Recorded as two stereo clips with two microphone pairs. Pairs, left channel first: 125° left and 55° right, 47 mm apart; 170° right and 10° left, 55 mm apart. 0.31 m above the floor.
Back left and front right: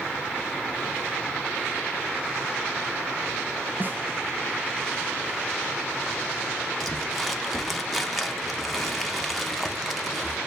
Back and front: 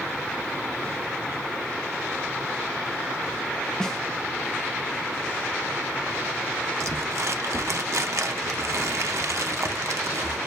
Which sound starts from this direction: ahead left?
Crumpling, at 6.8 s.